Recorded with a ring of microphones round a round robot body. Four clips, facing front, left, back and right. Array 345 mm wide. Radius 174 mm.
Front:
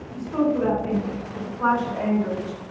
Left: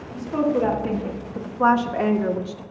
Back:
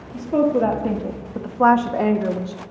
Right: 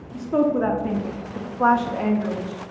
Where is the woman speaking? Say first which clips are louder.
Right 1 dB, back 4 dB; 150° right, 1.9 m; by 2.6 s 130° left, 1.0 m.